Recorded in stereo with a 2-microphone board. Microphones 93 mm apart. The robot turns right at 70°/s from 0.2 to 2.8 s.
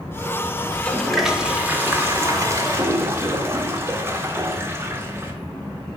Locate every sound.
0.7 s a toilet flushing: 15° left (ahead or behind), 0.6 m; by 5.3 s 25° right (ahead or behind), 0.6 m